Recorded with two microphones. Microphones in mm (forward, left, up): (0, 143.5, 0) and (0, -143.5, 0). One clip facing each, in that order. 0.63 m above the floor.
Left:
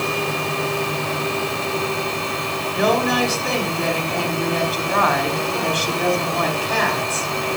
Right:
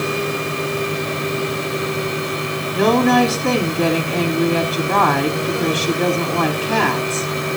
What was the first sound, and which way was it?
A woman speaking, 70° right (ahead or behind).